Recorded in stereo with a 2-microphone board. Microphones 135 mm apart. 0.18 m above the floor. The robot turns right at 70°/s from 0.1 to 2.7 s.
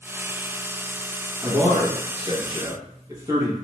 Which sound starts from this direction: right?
A man speaking, at 1.4 s.